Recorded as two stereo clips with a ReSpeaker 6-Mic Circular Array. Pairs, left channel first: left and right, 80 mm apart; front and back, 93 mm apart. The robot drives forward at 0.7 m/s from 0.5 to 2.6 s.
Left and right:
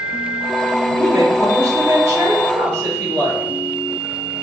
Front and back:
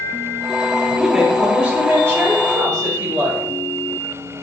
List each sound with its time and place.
1.0 s a woman speaking: 95° right, 1.5 m; by 3.4 s 140° right, 1.9 m